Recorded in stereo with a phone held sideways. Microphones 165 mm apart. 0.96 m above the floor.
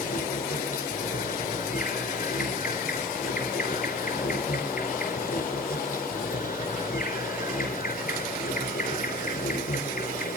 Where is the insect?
65° left (ahead or behind), 4 m.